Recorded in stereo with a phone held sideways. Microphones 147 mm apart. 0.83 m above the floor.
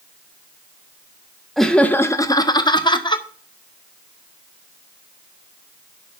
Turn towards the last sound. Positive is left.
turn(degrees=30)  # may be behind; listen again after turning